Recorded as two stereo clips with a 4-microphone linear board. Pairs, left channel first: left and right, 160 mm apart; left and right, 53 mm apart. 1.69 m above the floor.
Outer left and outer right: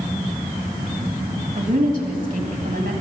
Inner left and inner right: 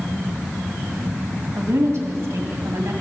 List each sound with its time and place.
1.6 s a woman speaking: 55° right (ahead or behind), 2 m